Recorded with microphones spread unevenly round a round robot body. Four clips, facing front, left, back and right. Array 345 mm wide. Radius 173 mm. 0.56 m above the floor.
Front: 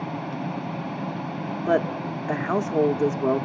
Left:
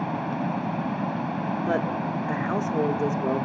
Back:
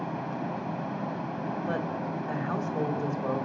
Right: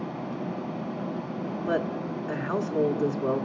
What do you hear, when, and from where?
0.0 s running water: 85° left, 1.8 m
1.7 s a woman speaking: 5° right, 1.4 m